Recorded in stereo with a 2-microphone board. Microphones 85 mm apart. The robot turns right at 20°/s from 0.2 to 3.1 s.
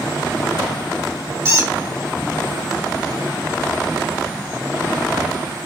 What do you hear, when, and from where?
1.4 s a squeak: 35° right (ahead or behind), 1.6 m; by 1.7 s 40° right (ahead or behind), 1.6 m